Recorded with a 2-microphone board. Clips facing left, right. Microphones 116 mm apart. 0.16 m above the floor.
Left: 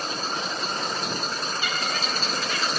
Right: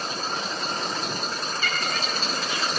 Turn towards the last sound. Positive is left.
turn(degrees=-25)  # may be behind; listen again after turning